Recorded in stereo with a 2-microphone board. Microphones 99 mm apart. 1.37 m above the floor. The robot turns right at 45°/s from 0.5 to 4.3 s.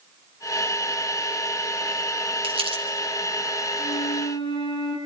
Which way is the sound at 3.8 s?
80° left.